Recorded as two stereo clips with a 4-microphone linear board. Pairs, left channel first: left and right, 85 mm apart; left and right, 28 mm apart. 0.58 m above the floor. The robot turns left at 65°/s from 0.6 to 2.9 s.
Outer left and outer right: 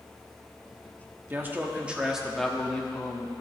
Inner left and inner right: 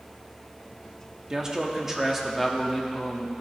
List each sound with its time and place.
1.3 s a man speaking: 25° right (ahead or behind), 0.8 m; by 3.3 s 15° left (ahead or behind), 0.8 m